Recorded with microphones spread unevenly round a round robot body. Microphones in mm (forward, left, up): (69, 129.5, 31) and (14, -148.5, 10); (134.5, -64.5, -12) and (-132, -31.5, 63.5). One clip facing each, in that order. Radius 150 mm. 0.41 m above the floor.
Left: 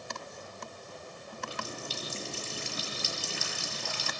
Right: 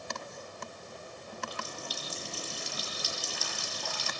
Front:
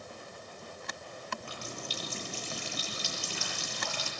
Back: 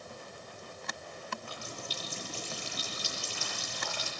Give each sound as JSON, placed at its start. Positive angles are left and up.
{"t": 1.4, "sound": "a running tap", "azimuth_deg": 20, "distance_m": 7.0}